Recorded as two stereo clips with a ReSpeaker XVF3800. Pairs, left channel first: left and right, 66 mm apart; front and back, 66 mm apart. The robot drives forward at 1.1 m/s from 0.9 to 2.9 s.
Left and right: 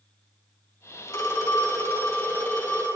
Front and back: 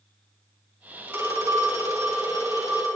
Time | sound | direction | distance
1.1 | a phone ringing | 125° left | 2.5 m